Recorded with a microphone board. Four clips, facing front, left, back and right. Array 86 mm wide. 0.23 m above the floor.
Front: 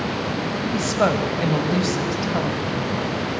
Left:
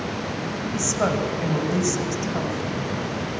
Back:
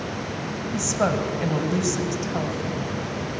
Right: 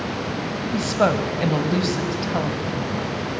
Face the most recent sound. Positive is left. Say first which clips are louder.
# right 4 dB, front 3 dB
turn(degrees=-55)